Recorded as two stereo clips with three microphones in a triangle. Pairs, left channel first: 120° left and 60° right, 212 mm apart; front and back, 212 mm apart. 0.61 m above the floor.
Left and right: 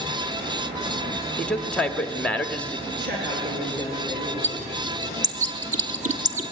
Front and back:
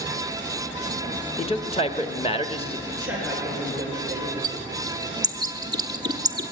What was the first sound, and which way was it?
A man speaking, 40° left.